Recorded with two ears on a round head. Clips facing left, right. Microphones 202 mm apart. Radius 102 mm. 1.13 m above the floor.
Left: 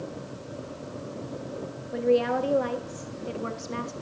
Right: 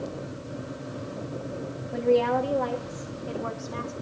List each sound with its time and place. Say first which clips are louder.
1.9 s a woman speaking: right 1 dB; 5° left (ahead or behind), 2.5 m; by 3.9 s 30° left (ahead or behind), 2.5 m